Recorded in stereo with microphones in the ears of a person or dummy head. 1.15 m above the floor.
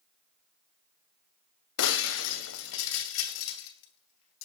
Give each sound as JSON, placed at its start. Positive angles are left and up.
{"t": 1.8, "sound": "breaking glass", "side_deg": 65, "distance_m": 2.5}